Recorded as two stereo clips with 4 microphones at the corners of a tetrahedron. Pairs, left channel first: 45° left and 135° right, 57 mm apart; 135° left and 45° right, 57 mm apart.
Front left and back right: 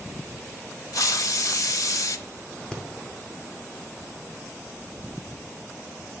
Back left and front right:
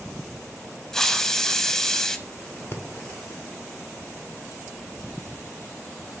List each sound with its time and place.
0.9 s a hiss: 55° left, 0.5 m
2.7 s breathing: 115° left, 0.9 m